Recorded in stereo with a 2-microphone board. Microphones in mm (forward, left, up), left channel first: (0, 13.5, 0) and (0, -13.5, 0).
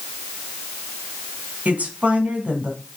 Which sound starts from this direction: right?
A woman speaking, at 1.6 s.